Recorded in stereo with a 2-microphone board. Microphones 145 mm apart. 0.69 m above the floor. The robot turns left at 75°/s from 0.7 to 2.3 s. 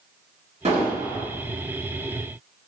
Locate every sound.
0.7 s an explosion: 125° right, 1.3 m; by 1.3 s 165° right, 1.3 m